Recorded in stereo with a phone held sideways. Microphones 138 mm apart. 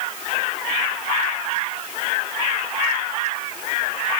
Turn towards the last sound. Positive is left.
No sound to turn to.